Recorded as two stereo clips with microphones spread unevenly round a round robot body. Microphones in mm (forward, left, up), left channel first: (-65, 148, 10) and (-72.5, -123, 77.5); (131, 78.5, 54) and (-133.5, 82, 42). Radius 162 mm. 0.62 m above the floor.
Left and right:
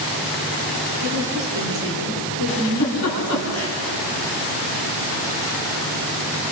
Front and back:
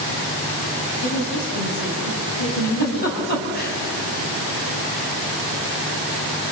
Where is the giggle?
50° left, 6.5 m.